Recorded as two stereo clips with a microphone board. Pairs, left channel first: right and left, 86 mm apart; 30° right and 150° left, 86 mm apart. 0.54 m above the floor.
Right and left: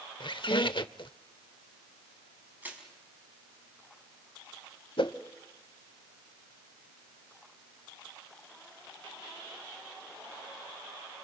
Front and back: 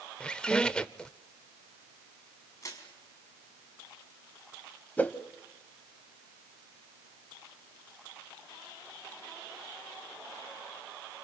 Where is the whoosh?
100° right, 1.0 m.